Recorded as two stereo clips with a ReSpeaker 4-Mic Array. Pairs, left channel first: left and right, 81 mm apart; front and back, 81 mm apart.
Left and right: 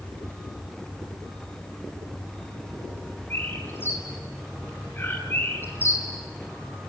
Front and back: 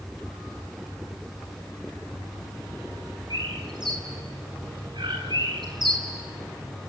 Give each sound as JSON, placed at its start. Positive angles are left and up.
{"t": 3.3, "sound": "a bird", "azimuth_deg": 155, "distance_m": 8.5}